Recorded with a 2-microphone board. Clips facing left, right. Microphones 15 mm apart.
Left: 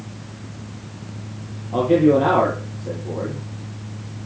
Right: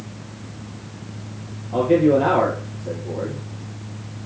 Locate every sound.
1.7 s a man speaking: 10° right (ahead or behind), 5 m